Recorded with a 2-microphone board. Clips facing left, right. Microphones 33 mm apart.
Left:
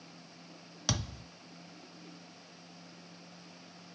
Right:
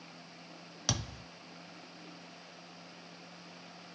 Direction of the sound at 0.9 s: Centre (ahead or behind).